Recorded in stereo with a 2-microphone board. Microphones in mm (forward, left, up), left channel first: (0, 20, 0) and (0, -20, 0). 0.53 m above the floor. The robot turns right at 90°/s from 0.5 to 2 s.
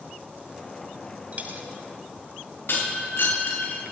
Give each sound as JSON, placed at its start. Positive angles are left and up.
{"t": 1.3, "sound": "a dropped coin", "side_deg": -35, "distance_m": 1.7}
{"t": 2.7, "sound": "breaking glass", "side_deg": 60, "distance_m": 6.0}